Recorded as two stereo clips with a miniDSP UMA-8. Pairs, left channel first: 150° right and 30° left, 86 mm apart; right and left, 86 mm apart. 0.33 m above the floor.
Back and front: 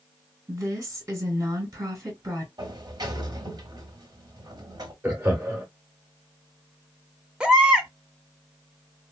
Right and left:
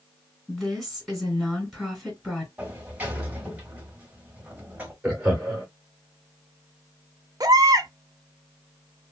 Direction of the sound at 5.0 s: 40° left.